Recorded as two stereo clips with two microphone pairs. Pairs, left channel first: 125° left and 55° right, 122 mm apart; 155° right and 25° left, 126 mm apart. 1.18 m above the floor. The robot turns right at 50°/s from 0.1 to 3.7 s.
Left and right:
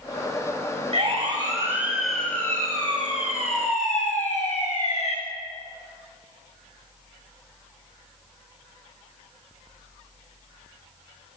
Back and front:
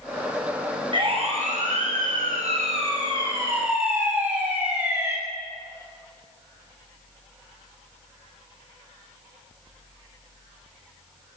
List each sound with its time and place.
0.9 s a siren: 20° right, 9 m; by 5.2 s 95° left, 6 m